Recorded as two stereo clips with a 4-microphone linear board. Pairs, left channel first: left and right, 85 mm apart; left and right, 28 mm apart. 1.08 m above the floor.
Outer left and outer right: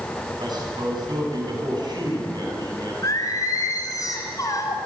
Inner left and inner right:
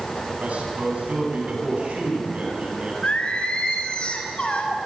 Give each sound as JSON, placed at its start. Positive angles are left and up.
{"t": 0.4, "sound": "a man speaking", "side_deg": -55, "distance_m": 9.5}
{"t": 3.0, "sound": "singing", "side_deg": 40, "distance_m": 4.5}